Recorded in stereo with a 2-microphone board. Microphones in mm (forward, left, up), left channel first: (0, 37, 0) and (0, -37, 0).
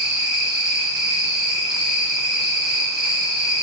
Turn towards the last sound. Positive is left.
turn(degrees=-10)  # may be behind; listen again after turning